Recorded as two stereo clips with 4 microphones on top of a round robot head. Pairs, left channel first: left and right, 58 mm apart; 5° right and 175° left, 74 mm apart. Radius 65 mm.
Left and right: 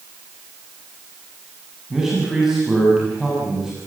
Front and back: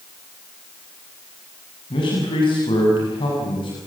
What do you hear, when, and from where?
1.9 s a man speaking: 5° right, 7.5 m